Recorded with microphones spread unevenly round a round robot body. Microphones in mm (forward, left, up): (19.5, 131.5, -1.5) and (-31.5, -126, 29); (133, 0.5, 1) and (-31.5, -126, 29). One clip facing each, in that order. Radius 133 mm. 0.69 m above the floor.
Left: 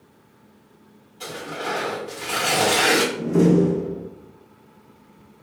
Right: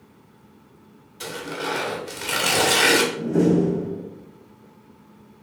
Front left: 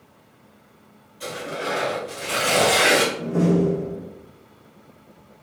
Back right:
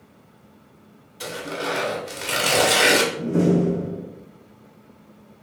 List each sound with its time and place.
1.2 s tearing paper: 150° right, 1.5 m
3.2 s a door slam: 155° left, 0.6 m